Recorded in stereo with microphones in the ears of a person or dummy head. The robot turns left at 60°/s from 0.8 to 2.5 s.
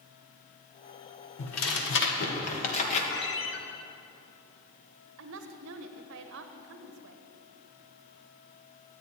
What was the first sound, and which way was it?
Tearing paper, 110° left.